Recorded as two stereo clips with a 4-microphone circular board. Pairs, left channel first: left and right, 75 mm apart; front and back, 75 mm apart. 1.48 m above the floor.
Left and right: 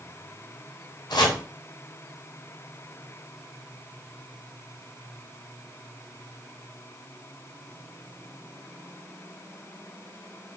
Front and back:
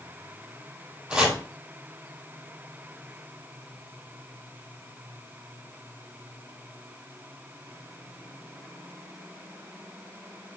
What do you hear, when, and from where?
1.1 s chopping: 100° left, 3 m